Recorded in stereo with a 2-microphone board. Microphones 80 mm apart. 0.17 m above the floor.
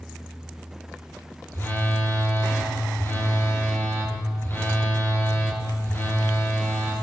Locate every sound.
1.5 s a phone buzzing: 30° left (ahead or behind), 2.0 m